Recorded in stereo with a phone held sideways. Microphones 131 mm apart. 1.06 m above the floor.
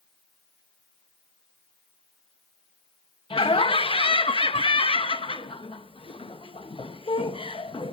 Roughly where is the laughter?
Left.